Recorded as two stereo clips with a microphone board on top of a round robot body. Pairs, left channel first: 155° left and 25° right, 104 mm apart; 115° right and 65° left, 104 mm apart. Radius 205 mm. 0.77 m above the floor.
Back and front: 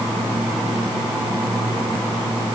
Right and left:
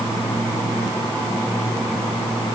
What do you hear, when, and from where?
Only background noise.